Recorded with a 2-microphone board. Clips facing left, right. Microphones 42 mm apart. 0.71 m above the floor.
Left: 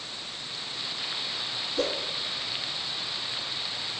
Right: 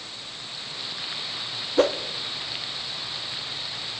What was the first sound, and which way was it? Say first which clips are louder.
A whoosh: right 9 dB; 55° right (ahead or behind).